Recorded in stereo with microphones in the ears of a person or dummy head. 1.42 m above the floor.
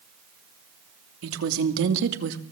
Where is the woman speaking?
85° right, 3 m; by 2.4 s 60° right (ahead or behind), 2 m.